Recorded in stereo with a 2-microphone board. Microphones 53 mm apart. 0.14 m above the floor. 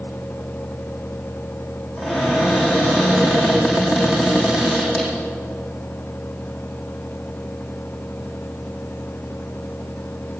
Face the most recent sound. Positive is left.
turn(degrees=-10)  # may be behind; listen again after turning